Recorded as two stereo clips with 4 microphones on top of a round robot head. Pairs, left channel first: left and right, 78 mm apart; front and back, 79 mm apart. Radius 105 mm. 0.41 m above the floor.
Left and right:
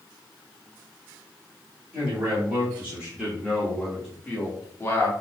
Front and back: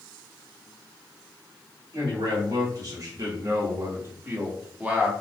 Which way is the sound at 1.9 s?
145° right.